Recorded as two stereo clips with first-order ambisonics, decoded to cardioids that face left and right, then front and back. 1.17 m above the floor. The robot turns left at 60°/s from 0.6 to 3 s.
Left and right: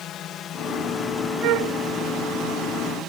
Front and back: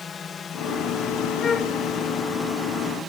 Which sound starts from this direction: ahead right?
A flute, at 1.4 s.